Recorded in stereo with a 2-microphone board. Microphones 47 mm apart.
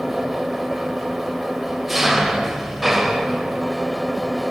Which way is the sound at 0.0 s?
5° right (ahead or behind).